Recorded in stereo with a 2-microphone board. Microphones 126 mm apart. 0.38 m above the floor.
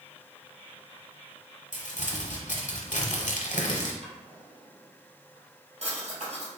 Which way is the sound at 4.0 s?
60° right (ahead or behind).